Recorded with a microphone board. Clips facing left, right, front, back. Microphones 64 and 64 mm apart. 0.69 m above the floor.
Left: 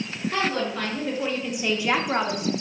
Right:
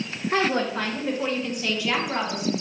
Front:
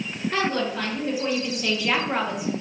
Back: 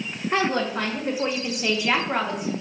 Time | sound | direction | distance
0.3 | a woman speaking | 135° right | 1.2 m